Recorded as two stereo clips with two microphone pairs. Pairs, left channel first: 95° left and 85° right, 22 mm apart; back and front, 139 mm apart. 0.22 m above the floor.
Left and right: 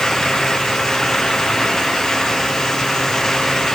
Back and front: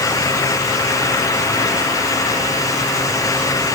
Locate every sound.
Only background noise.